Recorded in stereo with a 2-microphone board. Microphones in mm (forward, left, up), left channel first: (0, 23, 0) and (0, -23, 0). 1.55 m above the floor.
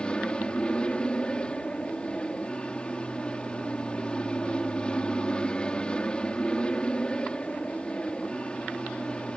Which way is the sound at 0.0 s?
20° left (ahead or behind).